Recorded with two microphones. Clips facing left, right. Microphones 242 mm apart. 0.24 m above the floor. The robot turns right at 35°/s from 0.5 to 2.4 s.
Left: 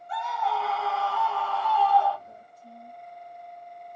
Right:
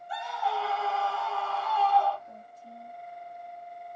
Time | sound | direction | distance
0.1 | a scream | 155° right | 1.7 m
2.3 | a woman speaking | 10° left (ahead or behind) | 1.4 m